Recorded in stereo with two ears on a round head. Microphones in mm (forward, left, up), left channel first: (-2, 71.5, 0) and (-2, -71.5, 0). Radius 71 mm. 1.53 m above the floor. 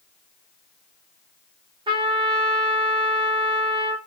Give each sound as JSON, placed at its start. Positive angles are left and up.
{"t": 1.9, "sound": "a trumpet", "side_deg": -30, "distance_m": 0.8}